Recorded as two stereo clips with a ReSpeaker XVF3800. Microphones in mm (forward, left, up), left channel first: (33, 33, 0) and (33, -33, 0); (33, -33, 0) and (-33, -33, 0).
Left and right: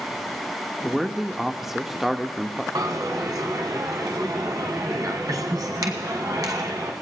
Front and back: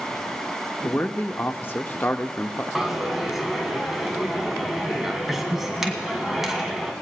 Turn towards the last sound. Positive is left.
turn(degrees=-95)